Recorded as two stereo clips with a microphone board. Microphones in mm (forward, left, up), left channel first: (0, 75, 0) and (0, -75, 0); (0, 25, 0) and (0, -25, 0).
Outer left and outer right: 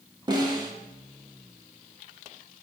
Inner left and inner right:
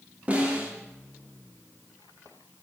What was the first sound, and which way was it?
A snare drum, 30° right (ahead or behind).